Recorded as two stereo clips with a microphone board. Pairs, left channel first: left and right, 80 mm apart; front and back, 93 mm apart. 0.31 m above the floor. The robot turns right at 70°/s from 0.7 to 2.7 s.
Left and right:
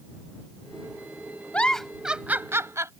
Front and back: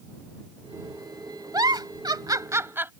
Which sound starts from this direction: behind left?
A giggle, at 1.5 s.